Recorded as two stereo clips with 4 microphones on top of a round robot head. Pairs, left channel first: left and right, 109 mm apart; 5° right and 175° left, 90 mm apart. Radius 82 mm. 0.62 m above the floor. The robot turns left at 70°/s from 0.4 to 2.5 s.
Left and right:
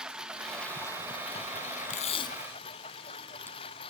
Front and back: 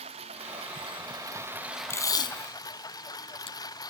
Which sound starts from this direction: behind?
A lawn mower, at 0.0 s.